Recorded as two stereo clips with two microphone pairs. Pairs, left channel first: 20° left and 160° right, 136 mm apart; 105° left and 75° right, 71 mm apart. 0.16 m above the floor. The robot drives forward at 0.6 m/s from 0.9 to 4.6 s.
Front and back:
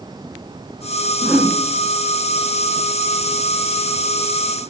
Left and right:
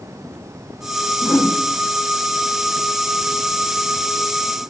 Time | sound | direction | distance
1.2 | a whoosh | 110° left | 0.5 m